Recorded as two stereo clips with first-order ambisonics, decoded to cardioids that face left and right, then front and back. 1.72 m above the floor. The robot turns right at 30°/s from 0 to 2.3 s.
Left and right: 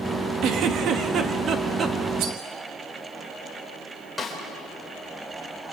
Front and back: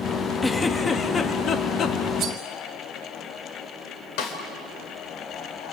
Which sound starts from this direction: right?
A giggle, at 0.4 s.